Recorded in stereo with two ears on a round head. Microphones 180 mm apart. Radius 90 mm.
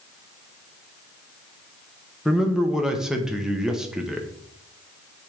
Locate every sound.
2.2 s a man speaking: 5° right (ahead or behind), 0.9 m